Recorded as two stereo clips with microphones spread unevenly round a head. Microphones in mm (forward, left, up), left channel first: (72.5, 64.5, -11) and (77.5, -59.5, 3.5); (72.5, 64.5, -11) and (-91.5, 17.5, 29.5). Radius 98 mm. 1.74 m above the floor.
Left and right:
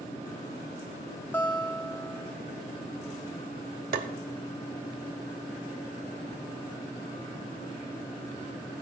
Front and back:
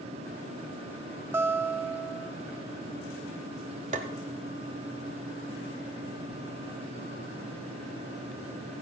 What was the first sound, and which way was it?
A guitar, 165° left.